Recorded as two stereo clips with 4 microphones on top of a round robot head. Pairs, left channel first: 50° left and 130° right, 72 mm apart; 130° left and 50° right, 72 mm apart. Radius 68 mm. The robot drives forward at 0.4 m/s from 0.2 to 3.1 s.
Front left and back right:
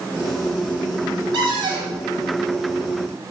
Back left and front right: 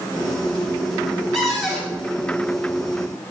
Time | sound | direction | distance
1.3 | a cupboard door | 140° right | 3.5 m